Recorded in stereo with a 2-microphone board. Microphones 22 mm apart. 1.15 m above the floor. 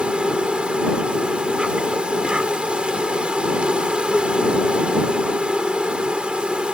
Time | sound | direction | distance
0.0 | an insect | 55° right (ahead or behind) | ?